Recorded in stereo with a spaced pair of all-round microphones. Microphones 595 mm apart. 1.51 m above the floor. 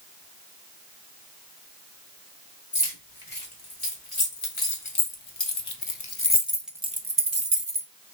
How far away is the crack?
No crack in this recording.